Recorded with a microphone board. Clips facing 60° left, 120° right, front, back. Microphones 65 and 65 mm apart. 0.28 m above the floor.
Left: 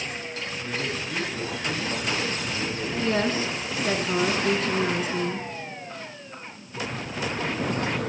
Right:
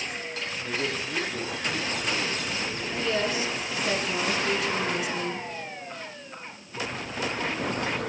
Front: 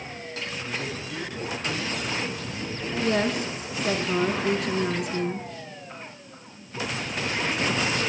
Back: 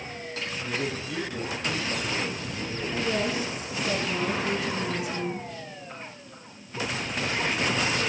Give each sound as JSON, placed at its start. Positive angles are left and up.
{"t": 0.6, "sound": "a man speaking", "azimuth_deg": 135, "distance_m": 5.0}
{"t": 3.0, "sound": "a woman speaking", "azimuth_deg": 15, "distance_m": 3.0}